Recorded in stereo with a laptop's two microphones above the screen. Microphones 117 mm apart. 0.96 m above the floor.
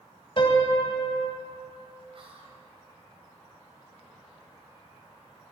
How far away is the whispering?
About 5 m.